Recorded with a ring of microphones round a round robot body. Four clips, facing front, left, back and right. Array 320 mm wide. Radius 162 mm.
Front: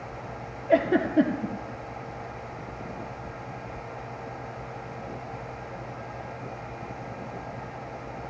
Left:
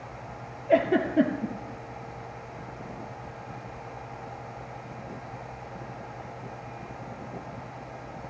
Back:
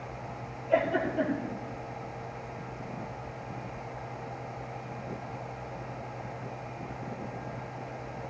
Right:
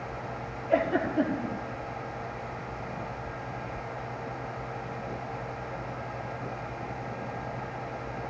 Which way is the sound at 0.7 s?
40° left.